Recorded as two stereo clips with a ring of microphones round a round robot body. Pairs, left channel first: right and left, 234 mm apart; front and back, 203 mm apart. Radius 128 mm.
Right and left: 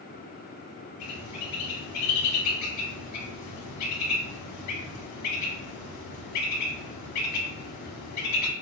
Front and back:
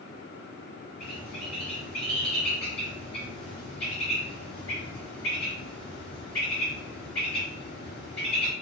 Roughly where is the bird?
Right.